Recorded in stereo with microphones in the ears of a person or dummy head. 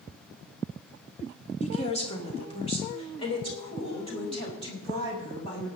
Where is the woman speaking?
40° left (ahead or behind), 1.9 m; by 5.7 s 30° left (ahead or behind), 7 m.